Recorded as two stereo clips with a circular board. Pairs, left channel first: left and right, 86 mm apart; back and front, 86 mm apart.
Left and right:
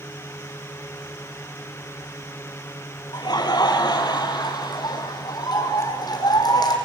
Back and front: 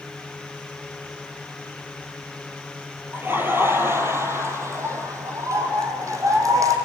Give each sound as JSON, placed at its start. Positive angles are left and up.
{"t": 3.1, "sound": "laughter", "azimuth_deg": 65, "distance_m": 3.0}